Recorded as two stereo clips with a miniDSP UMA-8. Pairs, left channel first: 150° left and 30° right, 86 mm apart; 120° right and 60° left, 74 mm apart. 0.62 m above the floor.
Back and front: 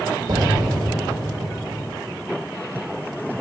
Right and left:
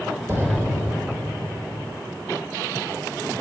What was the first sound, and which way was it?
An explosion, 5° left.